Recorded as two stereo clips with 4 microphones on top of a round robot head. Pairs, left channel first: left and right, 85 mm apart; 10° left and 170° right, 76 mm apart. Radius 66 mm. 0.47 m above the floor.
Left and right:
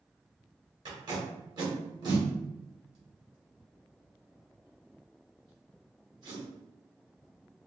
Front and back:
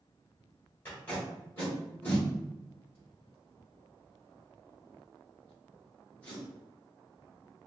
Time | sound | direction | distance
0.8 | tape being pulled | 55° right | 1.6 m